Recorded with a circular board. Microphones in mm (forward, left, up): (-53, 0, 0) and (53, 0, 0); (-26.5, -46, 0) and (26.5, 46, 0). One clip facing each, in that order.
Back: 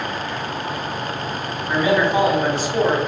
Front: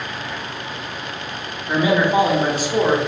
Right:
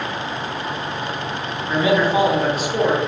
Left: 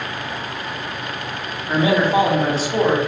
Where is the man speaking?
60° left, 1.1 m.